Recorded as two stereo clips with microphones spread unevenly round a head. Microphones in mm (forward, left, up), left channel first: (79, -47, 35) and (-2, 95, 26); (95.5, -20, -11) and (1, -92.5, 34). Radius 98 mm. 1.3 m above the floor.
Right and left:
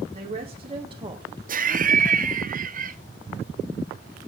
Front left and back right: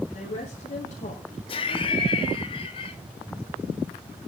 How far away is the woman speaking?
About 2.5 m.